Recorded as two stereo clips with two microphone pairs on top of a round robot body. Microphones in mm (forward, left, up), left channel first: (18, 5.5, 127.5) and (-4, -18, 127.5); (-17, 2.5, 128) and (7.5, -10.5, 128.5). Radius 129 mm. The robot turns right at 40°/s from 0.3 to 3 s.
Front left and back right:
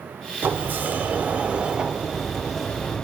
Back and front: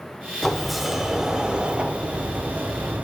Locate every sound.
0.4 s a sliding door: 125° right, 0.8 m; by 3.0 s 25° right, 0.8 m